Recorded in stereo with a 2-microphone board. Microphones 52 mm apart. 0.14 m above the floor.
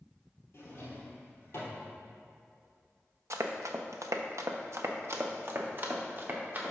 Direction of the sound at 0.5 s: 50° left (ahead or behind).